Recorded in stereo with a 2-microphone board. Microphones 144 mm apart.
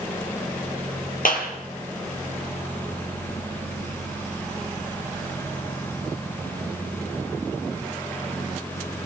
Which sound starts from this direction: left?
A clap, at 1.2 s.